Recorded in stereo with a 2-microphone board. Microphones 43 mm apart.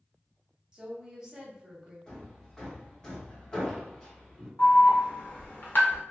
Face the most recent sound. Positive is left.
turn(degrees=55)  # may be behind; listen again after turning